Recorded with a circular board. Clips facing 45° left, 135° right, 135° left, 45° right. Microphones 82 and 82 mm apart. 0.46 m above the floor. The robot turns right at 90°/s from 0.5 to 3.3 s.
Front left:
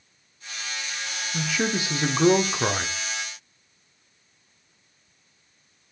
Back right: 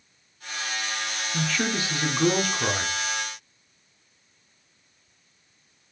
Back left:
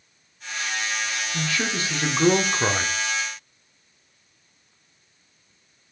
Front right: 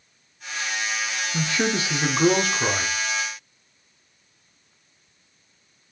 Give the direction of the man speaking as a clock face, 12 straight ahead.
1 o'clock.